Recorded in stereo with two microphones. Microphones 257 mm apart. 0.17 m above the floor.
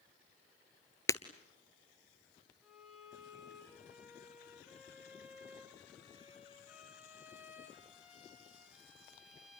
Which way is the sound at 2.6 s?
Centre (ahead or behind).